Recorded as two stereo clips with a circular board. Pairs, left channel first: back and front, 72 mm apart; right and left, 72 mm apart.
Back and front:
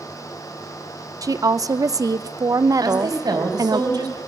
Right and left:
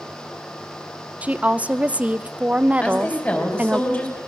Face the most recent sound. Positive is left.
turn(degrees=-20)